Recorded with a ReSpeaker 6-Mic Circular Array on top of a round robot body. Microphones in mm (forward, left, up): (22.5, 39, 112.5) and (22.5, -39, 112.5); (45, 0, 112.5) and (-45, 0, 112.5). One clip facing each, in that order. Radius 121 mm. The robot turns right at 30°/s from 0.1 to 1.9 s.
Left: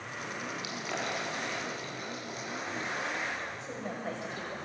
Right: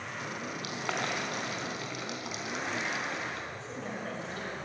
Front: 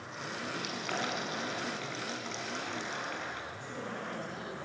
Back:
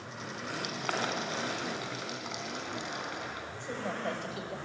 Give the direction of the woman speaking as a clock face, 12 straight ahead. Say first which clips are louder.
Even, back 4 dB; 7 o'clock.